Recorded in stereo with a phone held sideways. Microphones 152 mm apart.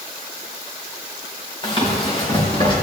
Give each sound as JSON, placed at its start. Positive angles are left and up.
{"t": 1.6, "sound": "running footsteps", "side_deg": 35, "distance_m": 4.0}